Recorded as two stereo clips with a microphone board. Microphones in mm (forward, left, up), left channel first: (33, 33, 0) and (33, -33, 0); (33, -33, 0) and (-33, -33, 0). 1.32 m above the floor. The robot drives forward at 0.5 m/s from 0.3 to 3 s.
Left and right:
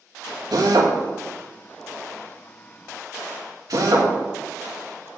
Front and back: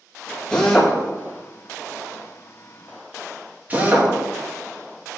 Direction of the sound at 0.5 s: 80° right.